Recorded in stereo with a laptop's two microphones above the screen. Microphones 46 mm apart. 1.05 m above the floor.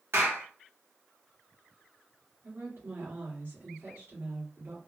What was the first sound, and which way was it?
A clap, 60° right (ahead or behind).